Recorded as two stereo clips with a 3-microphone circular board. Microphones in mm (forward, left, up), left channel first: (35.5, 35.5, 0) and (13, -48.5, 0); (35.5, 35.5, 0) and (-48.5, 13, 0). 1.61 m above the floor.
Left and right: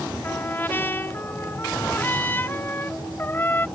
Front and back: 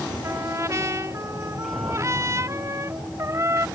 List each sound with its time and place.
0.2 s a trumpet: 140° left